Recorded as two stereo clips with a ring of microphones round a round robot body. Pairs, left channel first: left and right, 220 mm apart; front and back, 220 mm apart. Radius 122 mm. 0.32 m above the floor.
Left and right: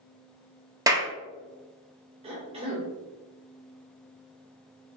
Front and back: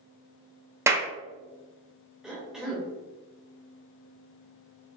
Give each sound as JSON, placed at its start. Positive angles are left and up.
{"t": 0.9, "sound": "a clap", "azimuth_deg": -130, "distance_m": 0.8}
{"t": 2.2, "sound": "a cough", "azimuth_deg": -95, "distance_m": 0.9}